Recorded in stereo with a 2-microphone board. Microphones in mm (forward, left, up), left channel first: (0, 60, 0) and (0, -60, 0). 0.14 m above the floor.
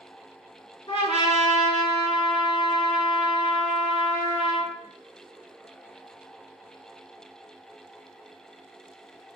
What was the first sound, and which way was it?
A trumpet, 50° left (ahead or behind).